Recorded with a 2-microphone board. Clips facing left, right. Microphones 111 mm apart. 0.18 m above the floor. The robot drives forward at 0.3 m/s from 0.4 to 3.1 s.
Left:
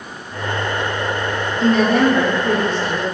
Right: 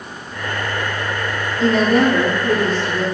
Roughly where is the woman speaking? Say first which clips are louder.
Even; centre.